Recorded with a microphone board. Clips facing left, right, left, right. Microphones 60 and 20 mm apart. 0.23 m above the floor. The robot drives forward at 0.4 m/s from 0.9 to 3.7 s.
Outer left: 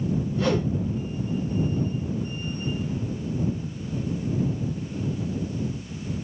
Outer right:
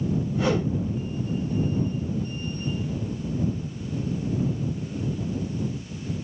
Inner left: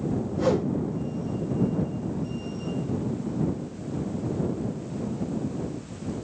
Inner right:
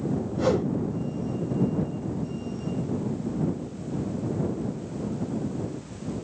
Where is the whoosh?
10° right (ahead or behind), 1.5 m.